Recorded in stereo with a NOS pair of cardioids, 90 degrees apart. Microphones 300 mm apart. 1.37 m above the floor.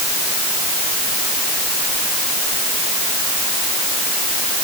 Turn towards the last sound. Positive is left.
No sound to turn to.